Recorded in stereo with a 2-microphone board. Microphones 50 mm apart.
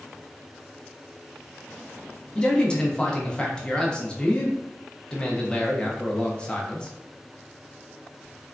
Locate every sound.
2.4 s a man speaking: 20° left (ahead or behind), 0.5 m